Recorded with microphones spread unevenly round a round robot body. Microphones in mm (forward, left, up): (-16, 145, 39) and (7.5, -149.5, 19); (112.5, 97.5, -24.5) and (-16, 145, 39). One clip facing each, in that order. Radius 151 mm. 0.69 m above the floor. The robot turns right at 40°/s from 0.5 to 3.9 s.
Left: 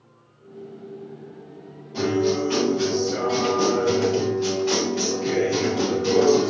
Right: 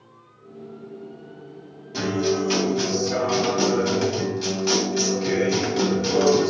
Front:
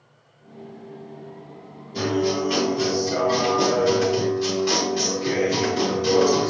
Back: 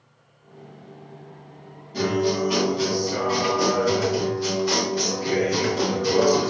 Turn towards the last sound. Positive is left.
turn(degrees=-55)